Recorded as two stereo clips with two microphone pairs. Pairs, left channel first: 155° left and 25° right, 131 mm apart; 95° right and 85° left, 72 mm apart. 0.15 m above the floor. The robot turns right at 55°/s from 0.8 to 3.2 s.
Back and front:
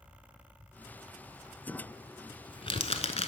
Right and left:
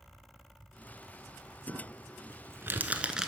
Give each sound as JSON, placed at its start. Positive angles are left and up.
{"t": 1.7, "sound": "crumpling", "azimuth_deg": 75, "distance_m": 0.8}